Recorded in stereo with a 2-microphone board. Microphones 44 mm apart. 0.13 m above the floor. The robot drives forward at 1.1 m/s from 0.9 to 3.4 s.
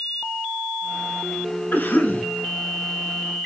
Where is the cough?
45° left (ahead or behind), 1.7 m.